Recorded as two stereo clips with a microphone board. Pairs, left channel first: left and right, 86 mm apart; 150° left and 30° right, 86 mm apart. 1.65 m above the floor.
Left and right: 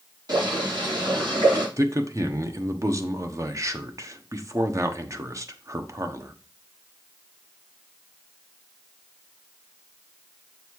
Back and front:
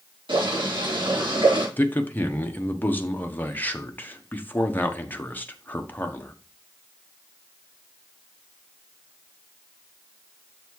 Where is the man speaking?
140° right, 1.0 m.